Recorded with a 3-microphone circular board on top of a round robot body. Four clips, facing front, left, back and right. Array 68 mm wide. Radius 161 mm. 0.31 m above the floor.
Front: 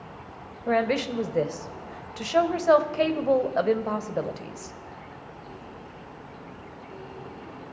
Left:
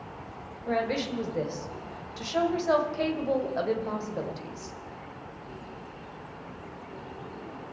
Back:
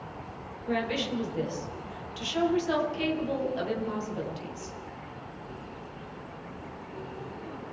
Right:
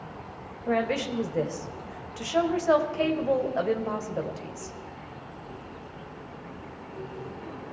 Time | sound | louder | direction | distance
0.7 | a woman speaking | right 2 dB, front 6 dB | 10° right | 2 m